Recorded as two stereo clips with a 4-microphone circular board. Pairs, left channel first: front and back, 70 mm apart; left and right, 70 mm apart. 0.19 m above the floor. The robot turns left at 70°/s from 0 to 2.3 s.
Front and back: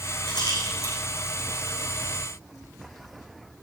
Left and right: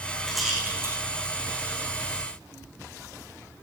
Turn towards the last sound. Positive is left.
turn(degrees=-135)